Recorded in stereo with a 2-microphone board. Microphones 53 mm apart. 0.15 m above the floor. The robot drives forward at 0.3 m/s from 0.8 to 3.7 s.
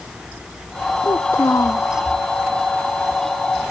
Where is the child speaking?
55° left (ahead or behind); by 1.9 s 60° left (ahead or behind).